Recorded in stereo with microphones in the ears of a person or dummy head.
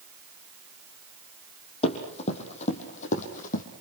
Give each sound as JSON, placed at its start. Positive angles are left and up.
{"t": 1.8, "sound": "running footsteps", "side_deg": 40, "distance_m": 5.5}